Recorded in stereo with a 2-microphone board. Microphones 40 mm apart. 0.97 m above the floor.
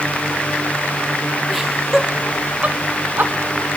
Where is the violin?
No violin in this recording.